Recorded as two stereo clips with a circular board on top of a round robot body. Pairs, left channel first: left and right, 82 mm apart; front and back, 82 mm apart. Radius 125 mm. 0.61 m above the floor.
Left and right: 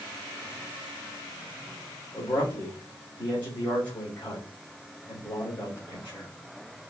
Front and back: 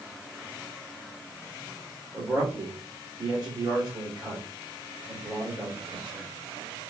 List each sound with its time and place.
2.1 s a man speaking: 155° left, 2.5 m